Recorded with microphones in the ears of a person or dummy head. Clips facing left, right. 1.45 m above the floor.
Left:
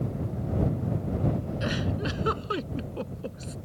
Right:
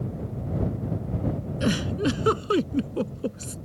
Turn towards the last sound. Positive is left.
turn(degrees=-45)  # may be behind; listen again after turning